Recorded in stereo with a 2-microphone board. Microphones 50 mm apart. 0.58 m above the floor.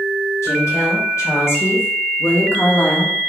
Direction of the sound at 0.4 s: 75° left (ahead or behind).